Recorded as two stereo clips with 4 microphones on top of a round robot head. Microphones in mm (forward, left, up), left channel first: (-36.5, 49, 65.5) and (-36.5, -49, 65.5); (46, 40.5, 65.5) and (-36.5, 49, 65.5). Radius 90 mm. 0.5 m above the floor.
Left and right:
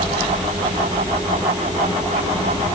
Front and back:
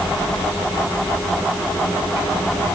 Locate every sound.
Only background noise.